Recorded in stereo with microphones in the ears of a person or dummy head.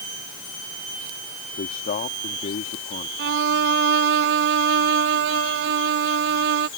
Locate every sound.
1.6 s a man speaking: 40° left (ahead or behind)
3.2 s a violin: 55° right (ahead or behind)